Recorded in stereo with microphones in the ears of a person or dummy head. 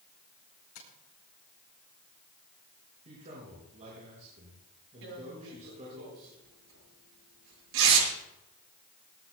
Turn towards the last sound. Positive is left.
turn(degrees=-80)